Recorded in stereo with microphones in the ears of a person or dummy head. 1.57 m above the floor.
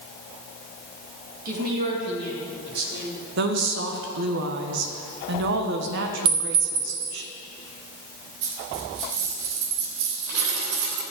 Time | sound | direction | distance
1.4 | a woman speaking | 50° right (ahead or behind) | 2.5 m
3.4 | a woman speaking | 60° right (ahead or behind) | 1.4 m
6.2 | a clink | 30° right (ahead or behind) | 1.7 m
8.4 | a dropped coin | 65° right (ahead or behind) | 3 m